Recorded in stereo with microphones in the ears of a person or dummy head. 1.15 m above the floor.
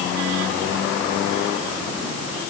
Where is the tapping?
I don't hear tapping.